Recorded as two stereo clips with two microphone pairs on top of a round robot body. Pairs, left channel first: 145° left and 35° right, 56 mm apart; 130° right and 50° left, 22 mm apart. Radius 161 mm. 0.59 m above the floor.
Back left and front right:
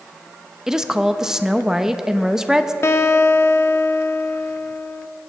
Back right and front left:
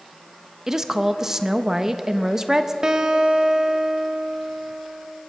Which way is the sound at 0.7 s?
30° left.